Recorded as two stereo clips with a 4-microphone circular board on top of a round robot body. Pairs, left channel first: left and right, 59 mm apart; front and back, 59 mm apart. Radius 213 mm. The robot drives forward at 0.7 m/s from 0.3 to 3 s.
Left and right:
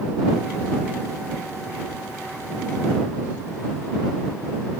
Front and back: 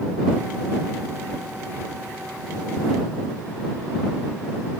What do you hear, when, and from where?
Only background noise.